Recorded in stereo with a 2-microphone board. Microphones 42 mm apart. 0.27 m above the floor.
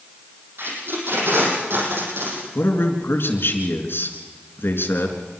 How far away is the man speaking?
About 4 m.